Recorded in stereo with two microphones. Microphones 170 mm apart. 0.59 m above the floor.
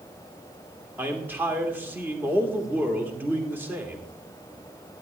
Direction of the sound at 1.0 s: 10° right (ahead or behind).